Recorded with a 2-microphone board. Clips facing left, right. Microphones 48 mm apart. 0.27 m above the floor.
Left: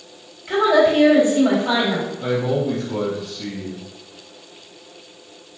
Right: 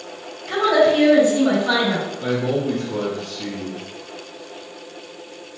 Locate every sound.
0.5 s a woman speaking: 30° left (ahead or behind), 1.6 m
2.2 s a man speaking: 10° left (ahead or behind), 1.1 m